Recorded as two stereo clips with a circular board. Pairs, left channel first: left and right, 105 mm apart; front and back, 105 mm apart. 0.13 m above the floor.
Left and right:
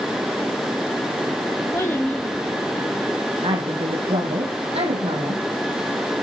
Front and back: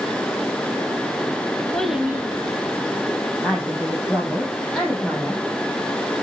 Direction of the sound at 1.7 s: 70° left.